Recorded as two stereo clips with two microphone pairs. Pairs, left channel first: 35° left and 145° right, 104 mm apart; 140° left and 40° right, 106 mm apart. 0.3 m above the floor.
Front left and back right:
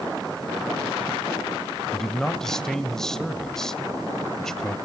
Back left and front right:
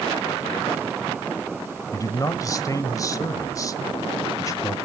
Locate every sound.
1.9 s a man speaking: 120° left, 1.2 m